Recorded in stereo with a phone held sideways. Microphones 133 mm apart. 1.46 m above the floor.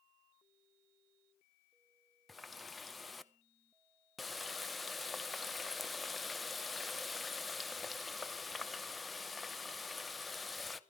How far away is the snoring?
I don't hear snoring.